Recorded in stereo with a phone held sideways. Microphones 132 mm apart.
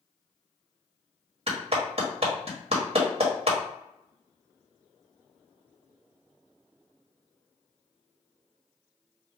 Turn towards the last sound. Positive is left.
turn(degrees=-45)  # may be behind; listen again after turning